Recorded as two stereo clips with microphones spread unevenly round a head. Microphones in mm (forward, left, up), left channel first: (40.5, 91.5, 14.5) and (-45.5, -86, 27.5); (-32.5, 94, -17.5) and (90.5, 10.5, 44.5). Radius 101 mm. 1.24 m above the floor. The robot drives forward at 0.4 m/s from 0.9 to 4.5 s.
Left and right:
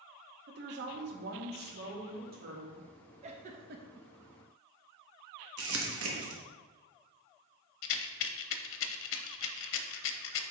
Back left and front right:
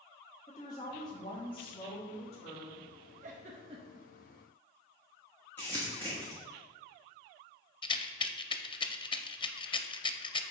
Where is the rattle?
90° left, 0.6 m.